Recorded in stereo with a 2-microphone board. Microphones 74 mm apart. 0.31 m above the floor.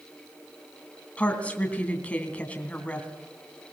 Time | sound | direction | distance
1.2 | a woman speaking | 20° left (ahead or behind) | 2.5 m